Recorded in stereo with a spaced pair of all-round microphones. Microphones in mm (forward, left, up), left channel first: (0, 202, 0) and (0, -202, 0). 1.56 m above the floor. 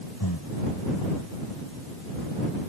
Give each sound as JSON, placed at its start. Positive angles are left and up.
{"t": 0.2, "sound": "breathing", "side_deg": 75}